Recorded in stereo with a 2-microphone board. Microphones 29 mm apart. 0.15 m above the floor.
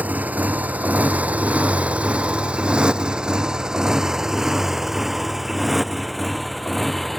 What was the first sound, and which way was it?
A motorcycle, 80° right.